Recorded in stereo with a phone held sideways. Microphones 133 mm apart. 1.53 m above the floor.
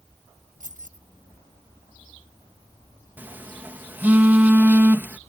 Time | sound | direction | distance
0.6 | keys jangling | 80° right | ?
3.2 | a phone buzzing | 15° right (ahead or behind) | ?